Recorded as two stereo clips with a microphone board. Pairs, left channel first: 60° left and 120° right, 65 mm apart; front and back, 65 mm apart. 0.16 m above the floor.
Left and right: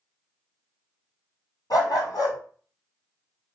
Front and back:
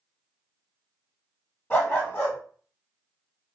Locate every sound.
1.7 s a dog barking: 65° left, 1.4 m